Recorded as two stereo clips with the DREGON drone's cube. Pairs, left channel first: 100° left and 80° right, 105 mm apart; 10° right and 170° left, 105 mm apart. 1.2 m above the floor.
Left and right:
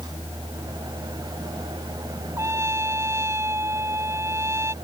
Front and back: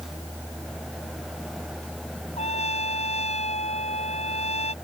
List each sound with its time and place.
2.4 s a trumpet: 15° right